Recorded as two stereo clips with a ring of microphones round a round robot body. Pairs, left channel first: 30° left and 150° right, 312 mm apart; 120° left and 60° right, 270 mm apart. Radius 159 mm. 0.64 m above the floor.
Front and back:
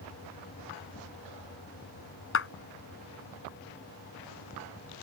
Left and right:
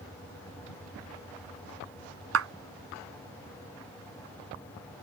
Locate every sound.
2.3 s a clap: 25° right